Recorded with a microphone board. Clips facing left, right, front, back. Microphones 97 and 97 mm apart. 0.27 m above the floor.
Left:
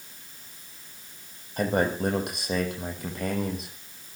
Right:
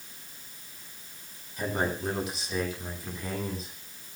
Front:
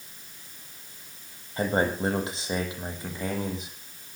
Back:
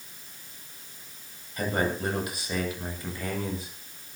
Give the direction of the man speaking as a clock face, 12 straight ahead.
10 o'clock.